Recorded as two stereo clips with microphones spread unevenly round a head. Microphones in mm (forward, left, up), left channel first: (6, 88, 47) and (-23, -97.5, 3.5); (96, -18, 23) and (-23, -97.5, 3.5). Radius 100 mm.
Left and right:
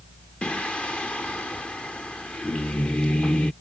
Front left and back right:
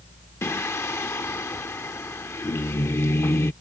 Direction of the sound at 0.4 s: 40° left.